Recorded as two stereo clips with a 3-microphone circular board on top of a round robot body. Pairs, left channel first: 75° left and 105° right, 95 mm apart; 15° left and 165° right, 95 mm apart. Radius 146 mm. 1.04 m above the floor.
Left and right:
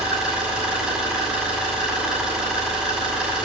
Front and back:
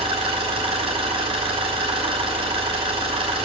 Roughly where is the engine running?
Behind.